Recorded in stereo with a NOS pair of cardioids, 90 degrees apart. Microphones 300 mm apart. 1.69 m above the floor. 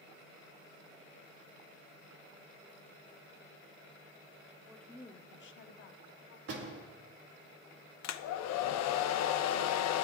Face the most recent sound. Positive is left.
turn(degrees=65)